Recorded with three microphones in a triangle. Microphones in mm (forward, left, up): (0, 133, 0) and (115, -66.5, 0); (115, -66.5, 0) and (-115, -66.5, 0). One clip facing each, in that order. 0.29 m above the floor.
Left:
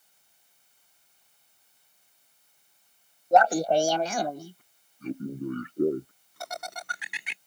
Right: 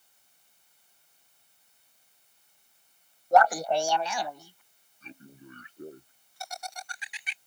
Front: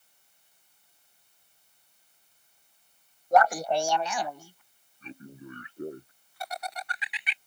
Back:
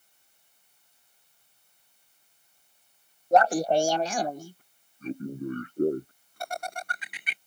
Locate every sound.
3.3 s laughter: 160° left; by 7.4 s 140° left